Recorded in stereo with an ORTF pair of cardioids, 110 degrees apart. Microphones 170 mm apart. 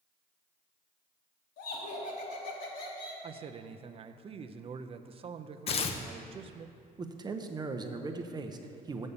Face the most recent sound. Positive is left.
turn(degrees=-25)